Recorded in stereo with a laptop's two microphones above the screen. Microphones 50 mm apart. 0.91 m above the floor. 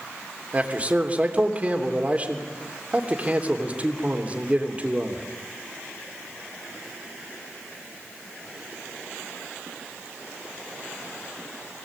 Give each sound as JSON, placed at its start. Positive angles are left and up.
{"t": 0.5, "sound": "a man speaking", "side_deg": -30, "distance_m": 3.0}